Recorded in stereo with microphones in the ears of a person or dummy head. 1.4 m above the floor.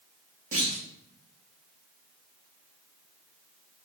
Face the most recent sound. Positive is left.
turn(degrees=-40)  # may be behind; listen again after turning